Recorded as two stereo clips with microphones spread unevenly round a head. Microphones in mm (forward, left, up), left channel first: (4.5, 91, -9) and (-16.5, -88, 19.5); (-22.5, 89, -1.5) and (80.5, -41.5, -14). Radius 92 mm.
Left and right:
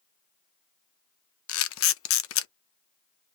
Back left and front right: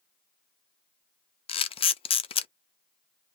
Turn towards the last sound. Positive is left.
turn(degrees=75)